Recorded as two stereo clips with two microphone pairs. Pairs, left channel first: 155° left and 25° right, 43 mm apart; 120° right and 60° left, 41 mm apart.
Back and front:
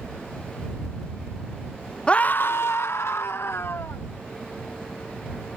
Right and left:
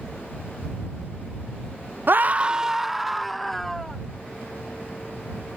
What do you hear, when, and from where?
2.1 s a scream: 85° left; by 4.0 s 160° left